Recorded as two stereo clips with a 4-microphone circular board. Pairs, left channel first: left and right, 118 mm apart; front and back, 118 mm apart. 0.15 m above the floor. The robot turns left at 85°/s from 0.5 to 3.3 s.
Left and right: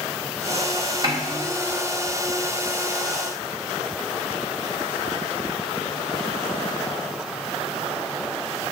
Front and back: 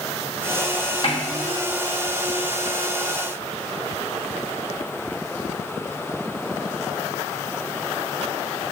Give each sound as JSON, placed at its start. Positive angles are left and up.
{"t": 1.0, "sound": "a snare drum", "azimuth_deg": -45, "distance_m": 1.4}